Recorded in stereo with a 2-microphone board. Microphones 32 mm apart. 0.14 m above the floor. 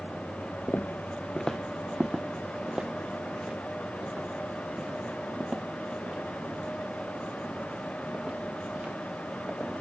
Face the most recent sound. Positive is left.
turn(degrees=-45)  # may be behind; listen again after turning